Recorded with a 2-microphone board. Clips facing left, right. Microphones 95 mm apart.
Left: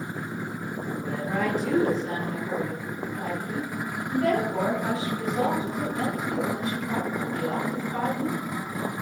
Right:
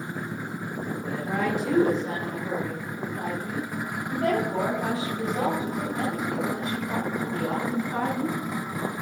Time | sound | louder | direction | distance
1.0 | a woman speaking | even | centre (ahead or behind) | 1.3 m